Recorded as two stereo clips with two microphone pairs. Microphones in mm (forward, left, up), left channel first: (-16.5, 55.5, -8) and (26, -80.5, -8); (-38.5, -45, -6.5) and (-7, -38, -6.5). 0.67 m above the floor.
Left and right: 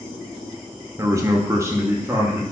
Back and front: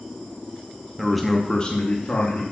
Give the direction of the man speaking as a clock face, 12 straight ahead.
2 o'clock.